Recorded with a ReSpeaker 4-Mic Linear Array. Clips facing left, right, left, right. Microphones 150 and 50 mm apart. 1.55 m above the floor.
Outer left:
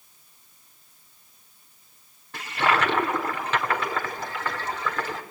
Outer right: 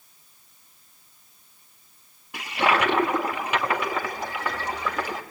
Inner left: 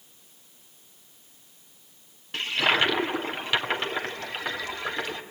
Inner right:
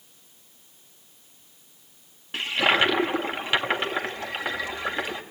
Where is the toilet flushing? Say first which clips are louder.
Outer right 1 dB, inner right 2 dB; 15° right (ahead or behind), 1.9 m.